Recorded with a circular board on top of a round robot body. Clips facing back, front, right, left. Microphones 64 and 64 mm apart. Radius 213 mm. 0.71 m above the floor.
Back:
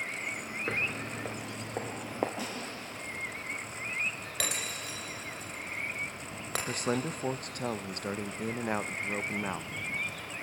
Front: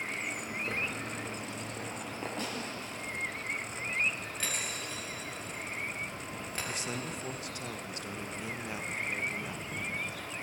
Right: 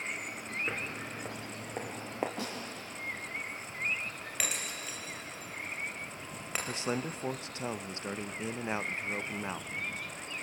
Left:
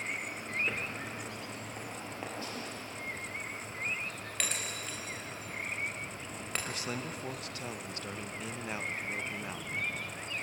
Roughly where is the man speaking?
Behind right.